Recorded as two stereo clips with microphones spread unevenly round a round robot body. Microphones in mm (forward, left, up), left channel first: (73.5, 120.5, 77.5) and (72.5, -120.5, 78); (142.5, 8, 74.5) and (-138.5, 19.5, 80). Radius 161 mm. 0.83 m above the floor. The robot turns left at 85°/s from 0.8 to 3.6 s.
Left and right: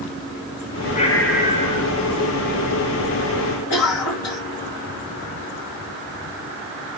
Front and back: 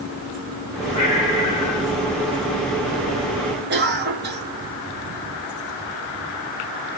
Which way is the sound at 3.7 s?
120° left.